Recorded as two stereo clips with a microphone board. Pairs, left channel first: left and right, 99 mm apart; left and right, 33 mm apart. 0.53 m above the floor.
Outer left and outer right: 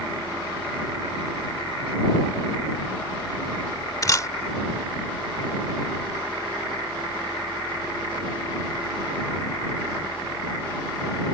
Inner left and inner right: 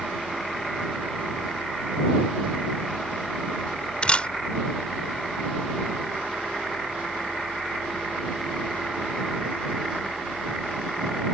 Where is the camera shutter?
35° left (ahead or behind).